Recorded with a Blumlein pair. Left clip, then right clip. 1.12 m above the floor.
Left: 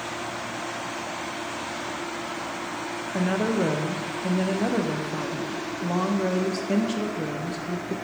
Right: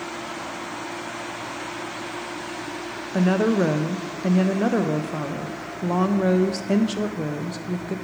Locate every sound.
3.1 s a woman speaking: 15° right, 0.6 m